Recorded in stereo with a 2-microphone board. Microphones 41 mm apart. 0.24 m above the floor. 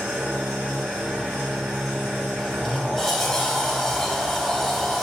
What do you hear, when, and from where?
0.0 s an engine running: 55° right (ahead or behind), 2.0 m
2.4 s a sliding door: 5° left (ahead or behind), 0.5 m